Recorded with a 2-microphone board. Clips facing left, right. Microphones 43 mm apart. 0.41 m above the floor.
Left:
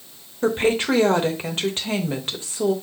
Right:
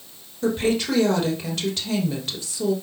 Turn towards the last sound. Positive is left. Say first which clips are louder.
# left 2 dB
turn(degrees=35)  # may be behind; listen again after turning